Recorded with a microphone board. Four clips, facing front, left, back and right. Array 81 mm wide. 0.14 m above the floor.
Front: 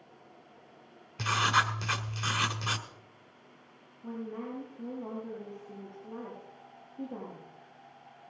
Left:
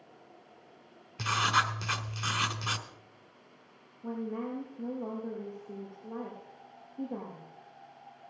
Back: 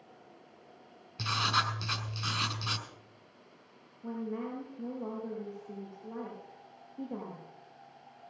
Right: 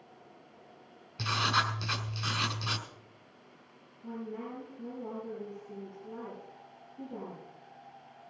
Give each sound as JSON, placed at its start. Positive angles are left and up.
{"t": 1.2, "sound": "writing", "azimuth_deg": 35, "distance_m": 1.2}
{"t": 4.0, "sound": "a woman speaking", "azimuth_deg": 140, "distance_m": 6.5}